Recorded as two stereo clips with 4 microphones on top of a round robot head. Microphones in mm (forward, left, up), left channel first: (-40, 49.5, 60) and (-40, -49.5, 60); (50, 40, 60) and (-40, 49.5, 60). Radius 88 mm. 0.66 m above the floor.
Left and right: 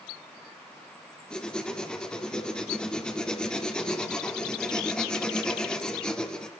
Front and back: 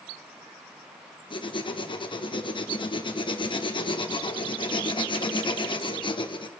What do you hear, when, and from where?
1.3 s writing: 10° left, 1.9 m